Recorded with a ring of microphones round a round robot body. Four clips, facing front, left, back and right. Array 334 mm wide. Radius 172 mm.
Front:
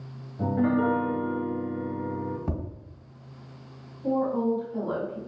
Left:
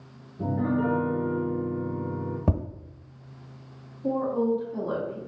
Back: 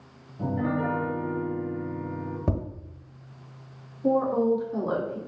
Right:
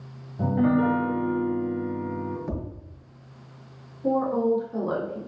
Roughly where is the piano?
Right.